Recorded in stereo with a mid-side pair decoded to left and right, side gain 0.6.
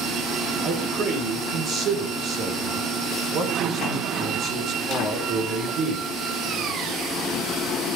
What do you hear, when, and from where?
0.6 s a man speaking: 50° right, 5.5 m